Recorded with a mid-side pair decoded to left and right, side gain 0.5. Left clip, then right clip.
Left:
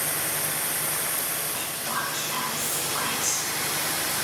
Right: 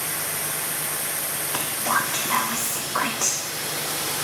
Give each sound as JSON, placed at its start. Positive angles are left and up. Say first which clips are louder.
{"t": 1.5, "sound": "whispering", "louder": "right 10 dB", "azimuth_deg": -60, "distance_m": 0.7}